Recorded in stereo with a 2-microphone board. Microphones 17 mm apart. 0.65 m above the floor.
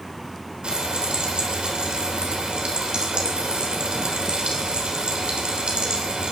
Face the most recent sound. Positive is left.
turn(degrees=-70)  # may be behind; listen again after turning